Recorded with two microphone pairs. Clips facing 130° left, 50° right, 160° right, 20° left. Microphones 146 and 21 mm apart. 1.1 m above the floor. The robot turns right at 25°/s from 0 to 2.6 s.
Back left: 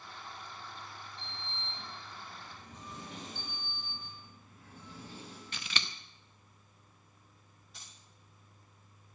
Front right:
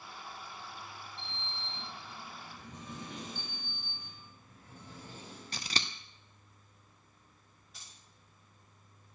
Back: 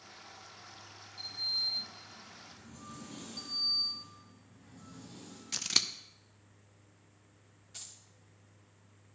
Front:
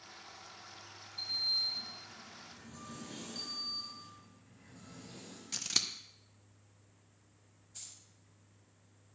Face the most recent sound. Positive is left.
turn(degrees=-140)